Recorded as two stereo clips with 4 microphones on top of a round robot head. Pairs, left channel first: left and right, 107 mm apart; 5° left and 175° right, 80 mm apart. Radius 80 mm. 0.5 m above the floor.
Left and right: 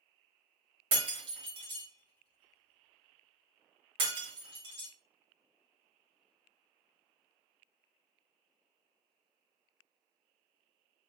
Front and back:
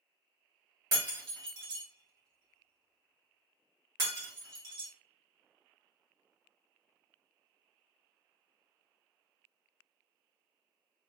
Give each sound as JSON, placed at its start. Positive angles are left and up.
{"t": 0.9, "sound": "breaking glass", "azimuth_deg": -120, "distance_m": 1.3}